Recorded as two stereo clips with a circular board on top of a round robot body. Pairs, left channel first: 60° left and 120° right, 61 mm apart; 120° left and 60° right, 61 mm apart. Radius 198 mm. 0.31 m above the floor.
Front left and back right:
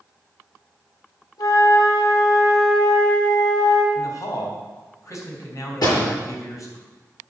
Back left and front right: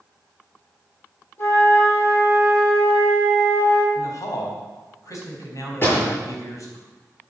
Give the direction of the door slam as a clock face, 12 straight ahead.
10 o'clock.